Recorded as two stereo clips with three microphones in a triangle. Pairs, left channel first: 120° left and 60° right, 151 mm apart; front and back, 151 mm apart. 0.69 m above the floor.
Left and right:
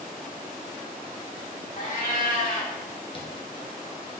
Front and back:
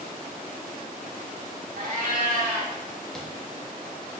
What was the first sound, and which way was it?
A cat meowing, 155° left.